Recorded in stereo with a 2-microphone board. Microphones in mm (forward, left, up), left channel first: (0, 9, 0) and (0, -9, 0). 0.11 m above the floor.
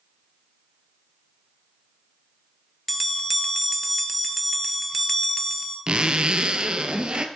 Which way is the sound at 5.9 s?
55° right (ahead or behind).